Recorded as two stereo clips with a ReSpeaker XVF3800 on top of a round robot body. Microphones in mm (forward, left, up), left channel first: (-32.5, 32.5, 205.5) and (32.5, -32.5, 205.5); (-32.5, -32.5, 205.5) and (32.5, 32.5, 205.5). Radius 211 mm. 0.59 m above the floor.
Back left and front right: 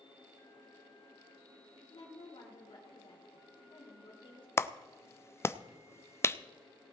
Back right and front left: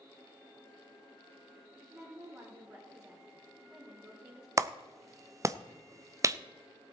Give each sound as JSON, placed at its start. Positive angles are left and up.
{"t": 1.9, "sound": "a woman speaking", "azimuth_deg": 105, "distance_m": 3.0}
{"t": 4.6, "sound": "a clap", "azimuth_deg": 85, "distance_m": 0.6}